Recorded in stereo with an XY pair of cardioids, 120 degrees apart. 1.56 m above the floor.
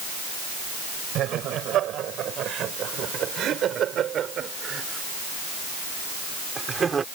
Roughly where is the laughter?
Ahead right.